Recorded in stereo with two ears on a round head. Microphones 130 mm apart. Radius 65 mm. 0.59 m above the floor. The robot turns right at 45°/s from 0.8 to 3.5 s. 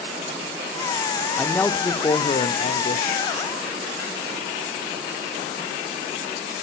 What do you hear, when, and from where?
1.4 s a man speaking: straight ahead, 1.1 m; by 3.2 s 85° left, 1.1 m